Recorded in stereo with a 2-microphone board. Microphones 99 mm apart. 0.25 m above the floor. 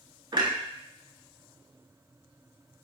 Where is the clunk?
50° right (ahead or behind), 0.7 m.